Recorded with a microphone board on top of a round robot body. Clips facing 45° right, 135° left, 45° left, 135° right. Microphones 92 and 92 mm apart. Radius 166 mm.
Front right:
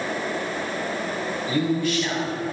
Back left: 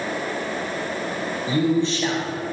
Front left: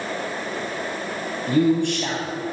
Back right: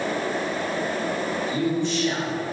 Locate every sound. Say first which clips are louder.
1.5 s a man speaking: back left 3 dB, front left 8 dB; 70° left, 4 m